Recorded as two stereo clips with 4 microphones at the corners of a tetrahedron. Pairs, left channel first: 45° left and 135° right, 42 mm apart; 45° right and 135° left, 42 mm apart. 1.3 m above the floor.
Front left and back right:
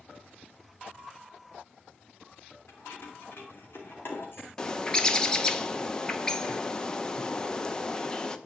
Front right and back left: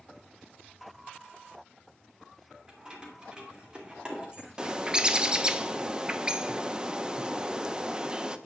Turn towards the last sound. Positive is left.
turn(degrees=95)